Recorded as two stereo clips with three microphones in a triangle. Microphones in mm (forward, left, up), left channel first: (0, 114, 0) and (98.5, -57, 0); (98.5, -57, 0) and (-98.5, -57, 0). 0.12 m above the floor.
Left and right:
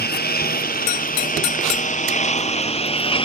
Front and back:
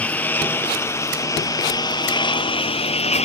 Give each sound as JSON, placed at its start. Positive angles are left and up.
{"t": 0.0, "sound": "a lawn mower", "azimuth_deg": 85}